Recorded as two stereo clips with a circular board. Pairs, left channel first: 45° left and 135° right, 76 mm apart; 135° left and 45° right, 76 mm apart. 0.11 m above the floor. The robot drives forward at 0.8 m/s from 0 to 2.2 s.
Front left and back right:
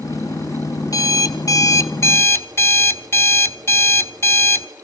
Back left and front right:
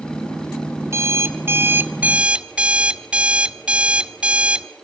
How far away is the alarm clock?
About 1.5 m.